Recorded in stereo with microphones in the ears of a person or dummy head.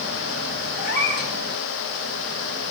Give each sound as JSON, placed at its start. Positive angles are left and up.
{"t": 0.8, "sound": "a cat meowing", "side_deg": 55, "distance_m": 3.5}